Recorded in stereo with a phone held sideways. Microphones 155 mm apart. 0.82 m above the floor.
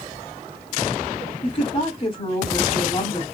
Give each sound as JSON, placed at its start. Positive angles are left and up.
{"t": 1.4, "sound": "a woman speaking", "side_deg": 40, "distance_m": 2.5}